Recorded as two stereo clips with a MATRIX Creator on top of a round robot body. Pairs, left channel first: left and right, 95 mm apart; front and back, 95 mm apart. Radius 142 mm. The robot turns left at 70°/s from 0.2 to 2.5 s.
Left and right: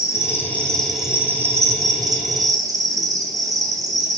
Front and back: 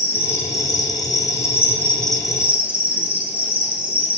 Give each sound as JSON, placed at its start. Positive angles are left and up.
{"t": 0.0, "sound": "an insect", "azimuth_deg": 50, "distance_m": 1.5}